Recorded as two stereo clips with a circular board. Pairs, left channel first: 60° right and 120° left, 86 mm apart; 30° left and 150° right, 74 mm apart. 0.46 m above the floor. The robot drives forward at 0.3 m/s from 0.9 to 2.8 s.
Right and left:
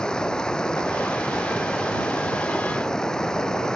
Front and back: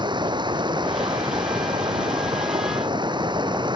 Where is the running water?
140° right.